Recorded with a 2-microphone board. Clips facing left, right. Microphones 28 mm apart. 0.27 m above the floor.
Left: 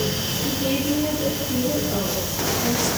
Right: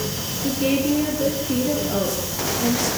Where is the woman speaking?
50° right (ahead or behind), 4.5 m; by 2.9 s 55° right (ahead or behind), 6 m.